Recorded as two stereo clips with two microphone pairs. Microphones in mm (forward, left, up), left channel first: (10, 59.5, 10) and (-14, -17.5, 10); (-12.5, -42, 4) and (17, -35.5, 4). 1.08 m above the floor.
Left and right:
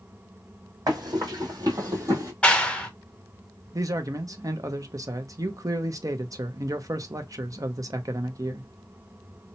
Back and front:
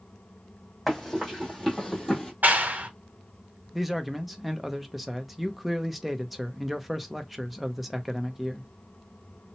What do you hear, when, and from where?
0.9 s running footsteps: 85° right, 1.9 m; by 2.3 s 100° right, 1.3 m
2.4 s a clap: straight ahead, 0.6 m
3.7 s a man speaking: 75° right, 0.5 m